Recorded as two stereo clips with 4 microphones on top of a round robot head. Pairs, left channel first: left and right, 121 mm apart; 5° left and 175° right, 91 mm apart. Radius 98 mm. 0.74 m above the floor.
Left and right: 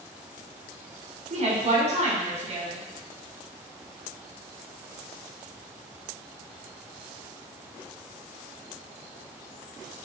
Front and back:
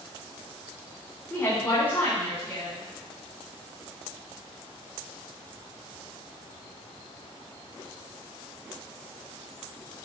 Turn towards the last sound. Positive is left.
turn(degrees=-65)